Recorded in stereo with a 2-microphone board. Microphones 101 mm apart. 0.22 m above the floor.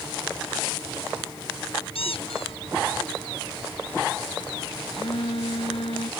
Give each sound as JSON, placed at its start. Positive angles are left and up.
{"t": 1.9, "sound": "a squeak", "side_deg": 80}
{"t": 4.9, "sound": "a phone buzzing", "side_deg": 80}